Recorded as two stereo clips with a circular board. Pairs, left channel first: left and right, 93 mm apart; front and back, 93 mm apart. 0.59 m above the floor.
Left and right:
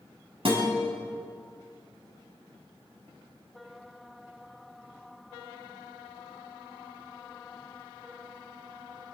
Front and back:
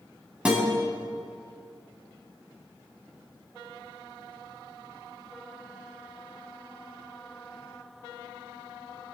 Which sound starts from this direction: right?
A guitar, at 0.5 s.